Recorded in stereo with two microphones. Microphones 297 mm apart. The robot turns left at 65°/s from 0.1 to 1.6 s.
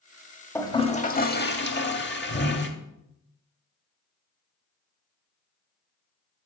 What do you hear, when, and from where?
0.6 s a toilet flushing: 165° left, 0.7 m; by 2.7 s 95° left, 0.7 m